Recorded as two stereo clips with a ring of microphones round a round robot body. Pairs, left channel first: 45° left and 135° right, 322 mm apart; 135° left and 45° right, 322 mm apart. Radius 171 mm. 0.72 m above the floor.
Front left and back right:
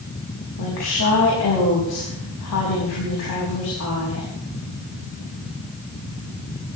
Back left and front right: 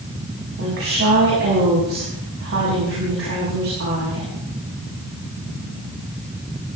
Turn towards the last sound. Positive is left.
turn(degrees=5)